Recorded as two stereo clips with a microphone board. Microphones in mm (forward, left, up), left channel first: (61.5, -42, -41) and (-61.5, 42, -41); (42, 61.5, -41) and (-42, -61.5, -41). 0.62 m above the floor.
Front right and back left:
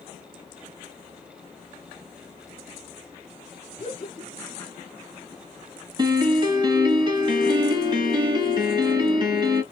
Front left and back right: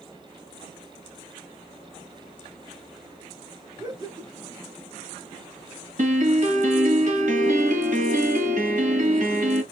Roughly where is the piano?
Behind right.